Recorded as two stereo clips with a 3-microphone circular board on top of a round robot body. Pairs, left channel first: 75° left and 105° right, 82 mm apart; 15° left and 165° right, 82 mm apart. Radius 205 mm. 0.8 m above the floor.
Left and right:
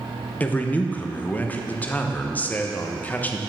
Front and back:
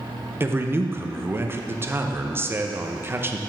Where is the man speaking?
140° left, 1.1 m.